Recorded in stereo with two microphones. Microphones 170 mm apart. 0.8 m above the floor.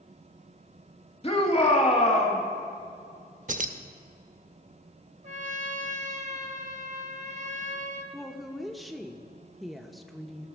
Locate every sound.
1.2 s a shout: 35° left (ahead or behind), 1.7 m
3.5 s keys jangling: 50° right (ahead or behind), 0.5 m
5.2 s a trumpet: 45° right (ahead or behind), 0.9 m
8.1 s a woman speaking: centre (ahead or behind), 0.6 m